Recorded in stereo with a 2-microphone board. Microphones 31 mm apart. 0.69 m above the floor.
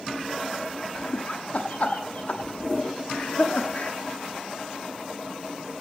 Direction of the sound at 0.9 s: 50° left (ahead or behind).